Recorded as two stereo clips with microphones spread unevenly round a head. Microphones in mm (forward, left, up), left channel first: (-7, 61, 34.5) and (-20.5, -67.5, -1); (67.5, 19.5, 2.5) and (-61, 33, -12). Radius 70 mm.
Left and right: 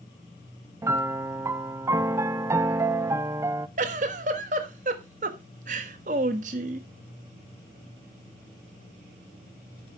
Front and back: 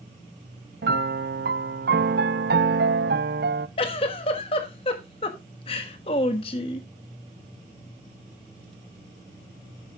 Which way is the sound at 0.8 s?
170° right.